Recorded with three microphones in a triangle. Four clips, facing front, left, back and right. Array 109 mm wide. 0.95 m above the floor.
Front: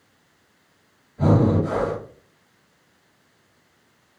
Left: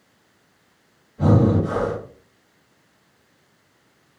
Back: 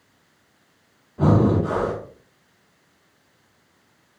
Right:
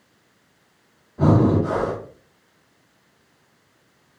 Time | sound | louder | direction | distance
1.2 | breathing | right 1 dB, back 1 dB | 130° right | 0.9 m